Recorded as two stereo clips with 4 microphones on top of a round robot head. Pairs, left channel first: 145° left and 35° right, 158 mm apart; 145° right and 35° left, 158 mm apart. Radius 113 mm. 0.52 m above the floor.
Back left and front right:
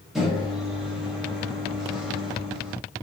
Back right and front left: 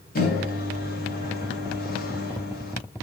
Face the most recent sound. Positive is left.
turn(degrees=-120)